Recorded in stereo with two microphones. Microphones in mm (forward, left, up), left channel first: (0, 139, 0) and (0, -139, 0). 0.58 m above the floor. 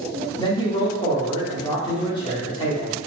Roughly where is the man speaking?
Centre.